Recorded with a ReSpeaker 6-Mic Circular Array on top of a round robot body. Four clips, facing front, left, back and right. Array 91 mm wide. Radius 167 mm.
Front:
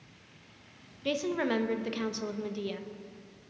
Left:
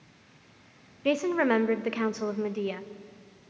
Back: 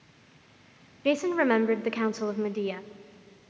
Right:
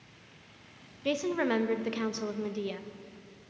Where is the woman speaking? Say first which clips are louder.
Left 4 dB, back 6 dB; 150° left, 1.0 m.